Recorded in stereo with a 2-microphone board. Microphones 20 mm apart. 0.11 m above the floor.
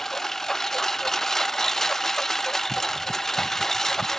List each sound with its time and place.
0.0 s a lawn mower: 20° left (ahead or behind)